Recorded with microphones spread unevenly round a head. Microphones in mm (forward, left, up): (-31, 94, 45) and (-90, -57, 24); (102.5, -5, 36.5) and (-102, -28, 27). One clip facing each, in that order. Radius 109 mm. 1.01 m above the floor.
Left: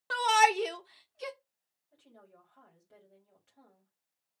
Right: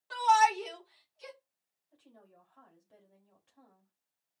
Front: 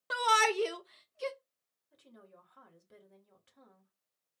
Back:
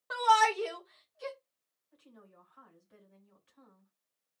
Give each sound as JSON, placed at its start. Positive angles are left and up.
{"t": 0.1, "sound": "a shout", "azimuth_deg": 55, "distance_m": 1.3}
{"t": 1.9, "sound": "a woman speaking", "azimuth_deg": -15, "distance_m": 3.5}